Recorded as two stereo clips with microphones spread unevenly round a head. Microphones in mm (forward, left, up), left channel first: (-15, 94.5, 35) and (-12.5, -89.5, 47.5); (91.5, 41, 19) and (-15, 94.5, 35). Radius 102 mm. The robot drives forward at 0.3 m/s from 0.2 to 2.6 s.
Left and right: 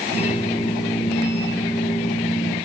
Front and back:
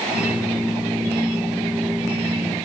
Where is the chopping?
I don't hear chopping.